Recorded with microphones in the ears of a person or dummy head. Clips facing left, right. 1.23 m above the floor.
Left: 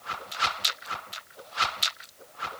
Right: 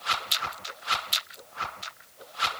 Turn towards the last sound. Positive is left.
No sound to turn to.